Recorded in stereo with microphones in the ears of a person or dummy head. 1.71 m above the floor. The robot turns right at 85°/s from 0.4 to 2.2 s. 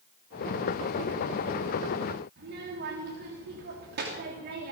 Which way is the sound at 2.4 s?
50° right (ahead or behind).